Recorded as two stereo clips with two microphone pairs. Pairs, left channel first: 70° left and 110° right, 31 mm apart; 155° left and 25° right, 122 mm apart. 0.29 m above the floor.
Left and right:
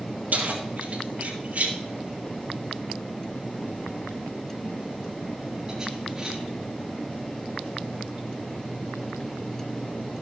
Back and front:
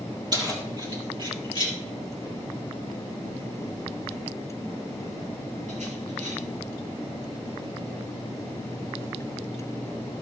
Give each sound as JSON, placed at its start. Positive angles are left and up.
{"t": 0.3, "sound": "keys jangling", "azimuth_deg": -80, "distance_m": 4.5}